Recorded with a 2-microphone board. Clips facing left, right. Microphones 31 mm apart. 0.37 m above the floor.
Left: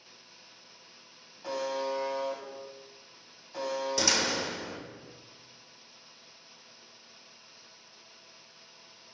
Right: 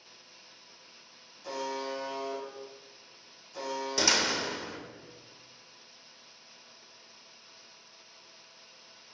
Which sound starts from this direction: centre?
A door slam, at 4.0 s.